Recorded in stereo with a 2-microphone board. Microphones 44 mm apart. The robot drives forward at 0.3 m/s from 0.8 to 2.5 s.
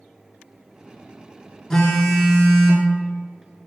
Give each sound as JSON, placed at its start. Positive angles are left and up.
{"t": 1.7, "sound": "a phone buzzing", "side_deg": 10, "distance_m": 0.6}